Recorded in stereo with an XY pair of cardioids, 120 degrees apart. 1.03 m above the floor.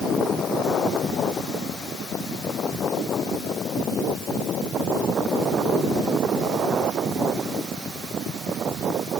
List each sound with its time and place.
Only background noise.